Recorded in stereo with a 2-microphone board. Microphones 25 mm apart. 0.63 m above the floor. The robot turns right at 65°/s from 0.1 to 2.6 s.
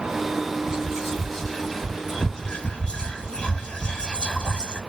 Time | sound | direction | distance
0.7 | whispering | 25° right (ahead or behind) | 1.3 m